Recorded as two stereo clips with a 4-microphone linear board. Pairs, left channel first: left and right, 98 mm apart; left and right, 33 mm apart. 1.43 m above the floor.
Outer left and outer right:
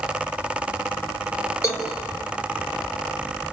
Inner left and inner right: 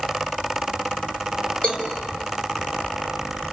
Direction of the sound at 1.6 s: 30° left (ahead or behind).